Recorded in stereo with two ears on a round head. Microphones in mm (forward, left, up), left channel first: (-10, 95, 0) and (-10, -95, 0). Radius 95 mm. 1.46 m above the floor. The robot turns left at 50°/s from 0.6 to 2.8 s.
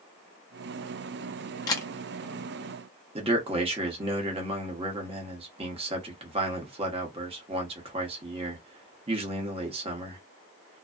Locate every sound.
1.7 s a camera shutter: 20° left (ahead or behind), 0.6 m; by 1.9 s 10° left (ahead or behind), 0.6 m
3.1 s a man speaking: 25° right (ahead or behind), 0.9 m